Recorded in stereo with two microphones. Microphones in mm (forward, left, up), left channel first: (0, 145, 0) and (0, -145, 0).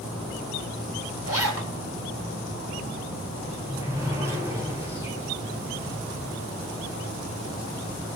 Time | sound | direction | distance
1.3 | a zipper | 55° right (ahead or behind) | 3 m
3.4 | a sliding door | 10° right (ahead or behind) | 8.5 m